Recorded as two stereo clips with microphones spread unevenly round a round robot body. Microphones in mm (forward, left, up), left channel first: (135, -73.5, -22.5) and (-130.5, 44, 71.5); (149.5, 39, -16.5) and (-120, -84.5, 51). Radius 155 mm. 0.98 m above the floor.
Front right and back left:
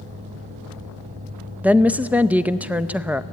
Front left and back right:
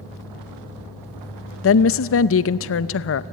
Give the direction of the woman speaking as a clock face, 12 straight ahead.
10 o'clock.